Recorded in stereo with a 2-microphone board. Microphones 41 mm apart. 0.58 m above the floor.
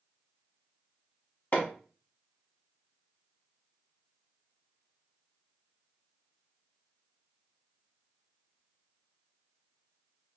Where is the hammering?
45° left (ahead or behind), 1.0 m.